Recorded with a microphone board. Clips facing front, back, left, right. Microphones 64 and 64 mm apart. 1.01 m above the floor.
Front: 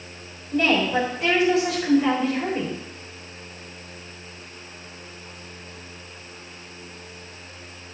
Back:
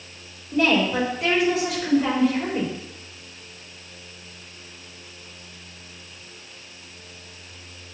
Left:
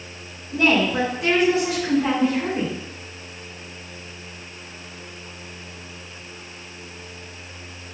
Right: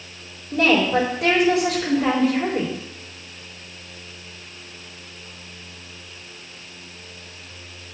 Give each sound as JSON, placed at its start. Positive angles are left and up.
{"t": 0.5, "sound": "a woman speaking", "azimuth_deg": -95, "distance_m": 4.0}